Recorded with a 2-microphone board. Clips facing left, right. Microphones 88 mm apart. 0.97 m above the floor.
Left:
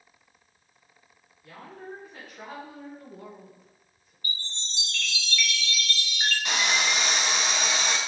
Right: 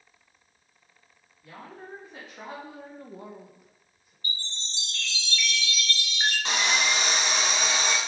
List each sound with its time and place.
1.4 s a woman speaking: 15° right (ahead or behind), 1.8 m; by 4.1 s 5° right (ahead or behind), 1.5 m
4.2 s a chime: 30° right (ahead or behind), 1.0 m
6.5 s sawing: 30° right (ahead or behind), 1.4 m